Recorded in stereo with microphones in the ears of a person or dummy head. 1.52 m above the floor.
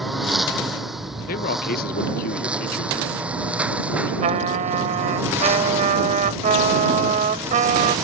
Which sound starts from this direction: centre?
A lawn mower, at 0.0 s.